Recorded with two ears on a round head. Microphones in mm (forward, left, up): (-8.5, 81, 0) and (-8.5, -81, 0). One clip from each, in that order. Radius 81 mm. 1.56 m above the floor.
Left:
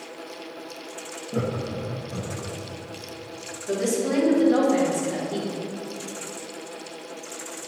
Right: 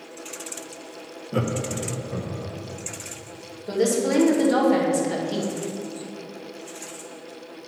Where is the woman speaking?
70° right (ahead or behind), 1.8 m.